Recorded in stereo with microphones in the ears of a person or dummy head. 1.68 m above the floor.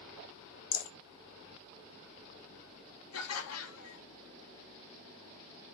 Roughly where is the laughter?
Left.